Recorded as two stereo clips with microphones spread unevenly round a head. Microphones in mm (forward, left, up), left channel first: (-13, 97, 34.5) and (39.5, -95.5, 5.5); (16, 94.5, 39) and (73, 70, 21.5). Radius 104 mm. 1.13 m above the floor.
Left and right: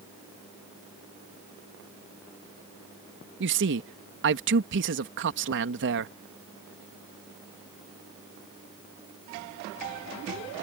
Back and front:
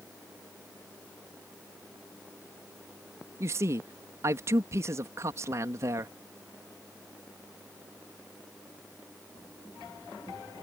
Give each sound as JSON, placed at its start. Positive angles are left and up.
{"t": 3.4, "sound": "a man speaking", "azimuth_deg": -65}